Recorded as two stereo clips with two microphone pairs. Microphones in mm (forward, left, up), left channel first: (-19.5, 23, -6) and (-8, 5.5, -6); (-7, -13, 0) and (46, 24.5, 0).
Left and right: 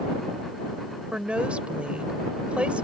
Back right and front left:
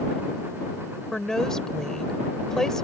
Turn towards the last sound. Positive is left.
turn(degrees=-65)